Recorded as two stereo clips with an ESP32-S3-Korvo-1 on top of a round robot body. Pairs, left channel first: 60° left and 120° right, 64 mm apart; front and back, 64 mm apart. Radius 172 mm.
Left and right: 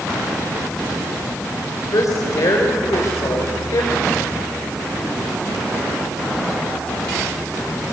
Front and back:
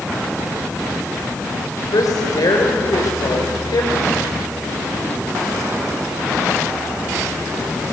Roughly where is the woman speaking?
Ahead left.